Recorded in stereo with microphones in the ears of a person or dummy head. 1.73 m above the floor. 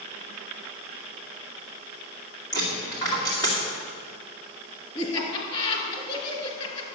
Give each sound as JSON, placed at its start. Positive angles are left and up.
{"t": 2.5, "sound": "a dropped coin", "side_deg": 20, "distance_m": 2.0}
{"t": 5.0, "sound": "laughter", "side_deg": 35, "distance_m": 2.5}